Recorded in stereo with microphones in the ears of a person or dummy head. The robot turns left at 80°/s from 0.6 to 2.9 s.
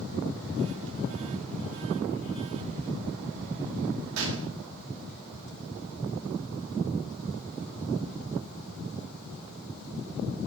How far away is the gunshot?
About 2.5 m.